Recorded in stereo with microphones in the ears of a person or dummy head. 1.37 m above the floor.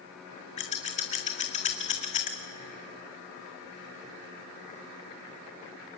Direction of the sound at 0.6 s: 30° left (ahead or behind).